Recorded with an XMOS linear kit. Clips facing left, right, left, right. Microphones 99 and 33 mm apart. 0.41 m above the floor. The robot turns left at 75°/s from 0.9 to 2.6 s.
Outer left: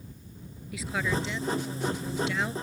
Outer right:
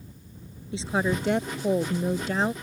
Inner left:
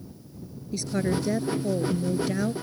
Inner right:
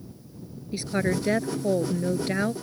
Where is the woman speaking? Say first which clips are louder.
Outer right 4 dB, inner right 1 dB; 30° right; by 2.5 s 150° right.